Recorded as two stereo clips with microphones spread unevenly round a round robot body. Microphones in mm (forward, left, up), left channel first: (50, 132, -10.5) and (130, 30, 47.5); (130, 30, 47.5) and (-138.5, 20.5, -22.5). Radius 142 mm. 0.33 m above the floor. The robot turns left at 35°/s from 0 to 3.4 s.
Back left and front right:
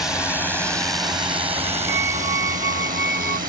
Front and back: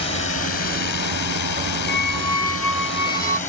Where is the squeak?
60° right; by 3.4 s 115° right.